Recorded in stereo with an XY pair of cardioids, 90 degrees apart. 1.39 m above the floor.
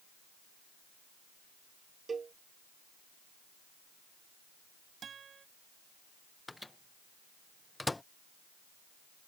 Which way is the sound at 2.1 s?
40° right.